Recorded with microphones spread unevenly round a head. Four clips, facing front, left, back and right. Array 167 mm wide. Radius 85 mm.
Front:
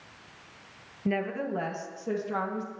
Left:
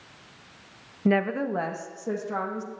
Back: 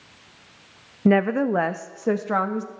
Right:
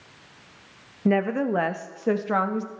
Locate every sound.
1.1 s a woman speaking: 175° right, 0.6 m; by 2.7 s 135° right, 1.4 m